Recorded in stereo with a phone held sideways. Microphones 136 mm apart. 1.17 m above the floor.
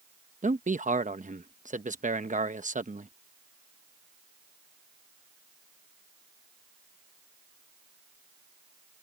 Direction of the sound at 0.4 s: 70° right (ahead or behind).